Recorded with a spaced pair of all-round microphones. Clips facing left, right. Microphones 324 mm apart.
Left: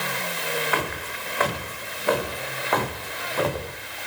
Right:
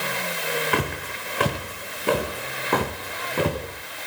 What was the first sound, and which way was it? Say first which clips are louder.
Footsteps: right 3 dB; 40° right (ahead or behind).